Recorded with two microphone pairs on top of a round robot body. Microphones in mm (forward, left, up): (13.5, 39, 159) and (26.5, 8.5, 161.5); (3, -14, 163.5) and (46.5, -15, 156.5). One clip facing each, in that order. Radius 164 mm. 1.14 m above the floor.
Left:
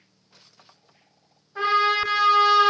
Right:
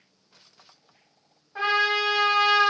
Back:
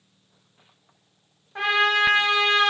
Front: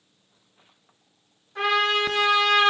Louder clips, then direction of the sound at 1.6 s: Left 2 dB, back 2 dB; 130° right.